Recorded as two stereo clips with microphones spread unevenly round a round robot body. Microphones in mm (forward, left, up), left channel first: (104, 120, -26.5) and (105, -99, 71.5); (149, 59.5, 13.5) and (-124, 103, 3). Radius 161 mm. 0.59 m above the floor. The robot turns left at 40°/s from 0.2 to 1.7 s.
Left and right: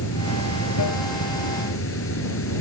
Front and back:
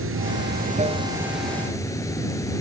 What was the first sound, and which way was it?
Running water, 130° left.